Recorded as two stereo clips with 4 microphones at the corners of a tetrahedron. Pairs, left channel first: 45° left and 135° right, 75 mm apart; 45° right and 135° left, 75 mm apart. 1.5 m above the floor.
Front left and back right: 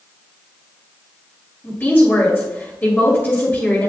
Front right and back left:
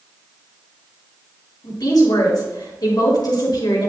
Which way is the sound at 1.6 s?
20° right.